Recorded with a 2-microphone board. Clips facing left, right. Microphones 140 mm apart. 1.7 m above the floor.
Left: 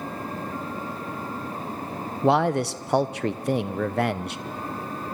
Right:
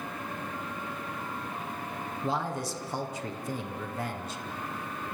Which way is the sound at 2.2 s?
70° left (ahead or behind).